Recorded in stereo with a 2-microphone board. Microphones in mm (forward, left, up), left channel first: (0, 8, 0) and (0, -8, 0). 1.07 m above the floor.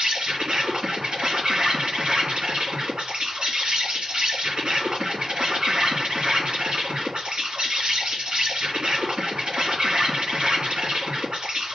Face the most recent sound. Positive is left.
turn(degrees=-70)  # may be behind; listen again after turning